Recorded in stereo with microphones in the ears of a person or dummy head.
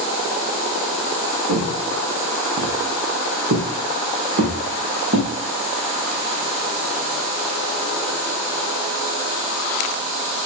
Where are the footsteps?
50° right (ahead or behind), 4.5 m.